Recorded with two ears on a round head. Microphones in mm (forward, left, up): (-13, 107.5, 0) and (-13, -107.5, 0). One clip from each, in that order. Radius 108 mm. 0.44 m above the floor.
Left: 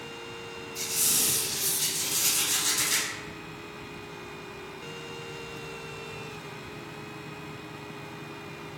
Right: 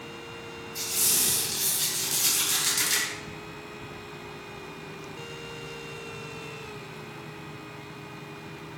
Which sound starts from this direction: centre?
A squeak, at 0.8 s.